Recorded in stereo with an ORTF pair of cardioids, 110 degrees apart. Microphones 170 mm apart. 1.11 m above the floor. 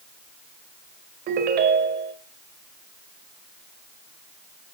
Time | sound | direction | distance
1.3 | a ringtone | 65° right | 2.5 m